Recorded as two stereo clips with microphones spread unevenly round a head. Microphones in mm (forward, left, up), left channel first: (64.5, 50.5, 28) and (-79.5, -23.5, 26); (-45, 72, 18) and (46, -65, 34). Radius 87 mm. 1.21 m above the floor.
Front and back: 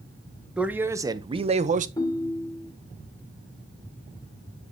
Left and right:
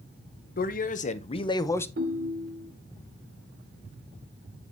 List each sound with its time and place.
0.6 s a man speaking: 125° left, 1.0 m; by 1.9 s 170° right, 0.8 m
2.0 s a ringtone: 40° right, 1.3 m